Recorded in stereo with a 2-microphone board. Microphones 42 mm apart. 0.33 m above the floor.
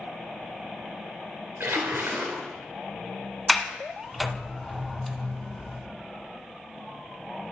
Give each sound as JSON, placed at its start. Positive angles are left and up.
{"t": 1.6, "sound": "a splash", "side_deg": -80, "distance_m": 2.0}
{"t": 3.5, "sound": "a sliding door", "side_deg": 0, "distance_m": 0.6}